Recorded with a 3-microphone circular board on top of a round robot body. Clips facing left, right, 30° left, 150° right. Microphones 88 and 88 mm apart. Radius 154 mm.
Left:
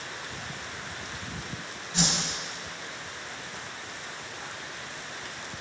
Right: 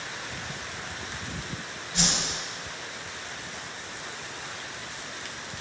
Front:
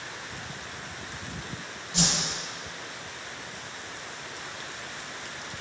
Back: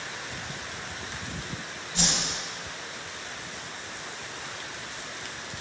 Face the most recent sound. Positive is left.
turn(degrees=20)